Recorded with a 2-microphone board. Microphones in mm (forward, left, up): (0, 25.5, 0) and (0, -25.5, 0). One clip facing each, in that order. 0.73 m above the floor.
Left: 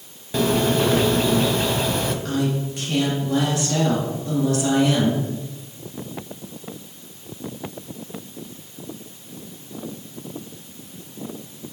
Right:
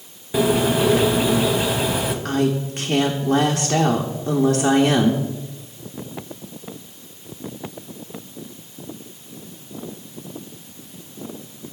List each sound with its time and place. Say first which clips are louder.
0.3 s a bird: right 1 dB; 10° right (ahead or behind), 0.5 m
2.2 s a woman speaking: right 3 dB; 45° right (ahead or behind), 0.8 m